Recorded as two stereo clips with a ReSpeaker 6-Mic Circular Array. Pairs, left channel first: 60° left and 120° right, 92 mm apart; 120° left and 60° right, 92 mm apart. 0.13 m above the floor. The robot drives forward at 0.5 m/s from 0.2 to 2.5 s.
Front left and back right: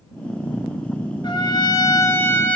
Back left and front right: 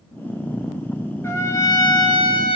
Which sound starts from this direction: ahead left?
A trumpet, at 1.2 s.